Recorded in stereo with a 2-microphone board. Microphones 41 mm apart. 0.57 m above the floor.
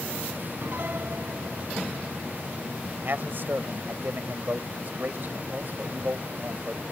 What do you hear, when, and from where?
0.6 s a piano: 60° right (ahead or behind)
3.0 s a man speaking: 50° right (ahead or behind)